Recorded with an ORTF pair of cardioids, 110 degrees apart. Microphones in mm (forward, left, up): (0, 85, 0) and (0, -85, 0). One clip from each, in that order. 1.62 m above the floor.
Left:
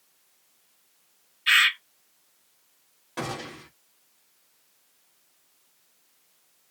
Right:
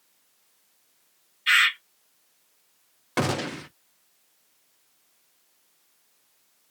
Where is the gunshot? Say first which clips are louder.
Right 7 dB; 60° right, 0.6 m.